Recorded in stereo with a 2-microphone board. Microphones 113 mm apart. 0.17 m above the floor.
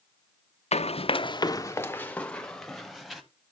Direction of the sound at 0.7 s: 75° left (ahead or behind).